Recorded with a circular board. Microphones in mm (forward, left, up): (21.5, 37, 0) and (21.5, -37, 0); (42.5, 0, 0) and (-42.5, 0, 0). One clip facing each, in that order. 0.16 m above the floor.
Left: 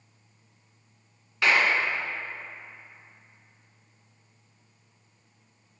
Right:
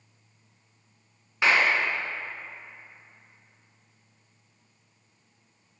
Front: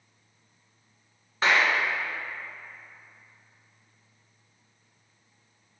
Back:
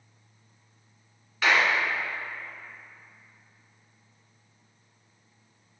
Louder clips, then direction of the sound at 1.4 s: Even, even; 35° right.